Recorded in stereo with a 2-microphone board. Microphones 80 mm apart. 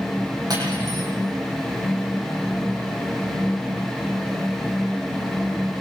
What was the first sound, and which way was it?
Cutlery clinking, 55° right (ahead or behind).